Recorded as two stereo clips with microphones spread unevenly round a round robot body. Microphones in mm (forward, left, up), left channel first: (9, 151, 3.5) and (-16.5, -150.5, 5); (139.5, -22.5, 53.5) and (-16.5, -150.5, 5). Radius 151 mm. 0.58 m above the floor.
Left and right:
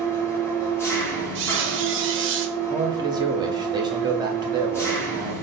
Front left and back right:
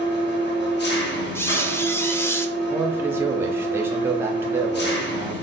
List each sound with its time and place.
0.0 s an engine running: 5° left, 0.9 m
1.4 s a squeak: 45° right, 0.7 m
2.7 s a man speaking: 155° right, 0.6 m